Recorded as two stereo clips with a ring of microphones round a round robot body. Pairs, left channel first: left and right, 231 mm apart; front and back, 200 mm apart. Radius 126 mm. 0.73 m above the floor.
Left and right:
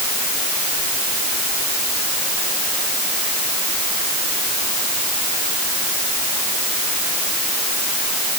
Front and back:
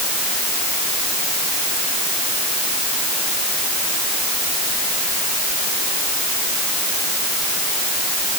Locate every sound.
Only background noise.